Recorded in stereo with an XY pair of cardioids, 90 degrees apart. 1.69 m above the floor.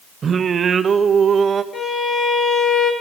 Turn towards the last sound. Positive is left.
turn(degrees=55)